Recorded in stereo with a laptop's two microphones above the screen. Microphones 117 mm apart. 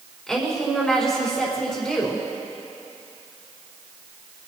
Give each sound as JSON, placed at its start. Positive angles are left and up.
{"t": 0.3, "sound": "a woman speaking", "side_deg": 5, "distance_m": 4.5}